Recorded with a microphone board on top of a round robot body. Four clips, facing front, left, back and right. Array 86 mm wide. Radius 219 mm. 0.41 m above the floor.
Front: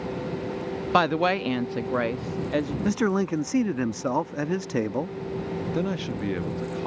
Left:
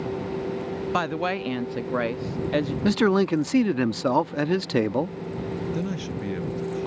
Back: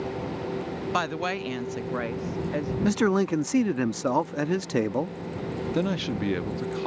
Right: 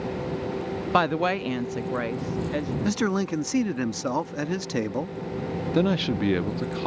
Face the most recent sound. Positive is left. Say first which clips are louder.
# right 7 dB, back 3 dB
turn(degrees=-105)